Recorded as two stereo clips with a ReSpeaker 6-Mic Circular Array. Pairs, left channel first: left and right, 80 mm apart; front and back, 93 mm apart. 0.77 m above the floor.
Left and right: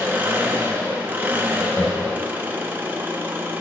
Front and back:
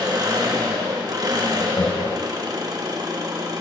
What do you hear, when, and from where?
0.0 s an engine running: 150° right, 0.9 m
1.6 s laughter: 20° left, 1.4 m